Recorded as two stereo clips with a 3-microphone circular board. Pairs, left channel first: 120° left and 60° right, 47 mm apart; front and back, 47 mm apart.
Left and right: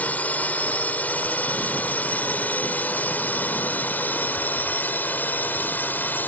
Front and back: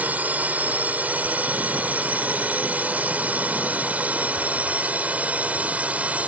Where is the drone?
155° left; by 6.3 s 135° left.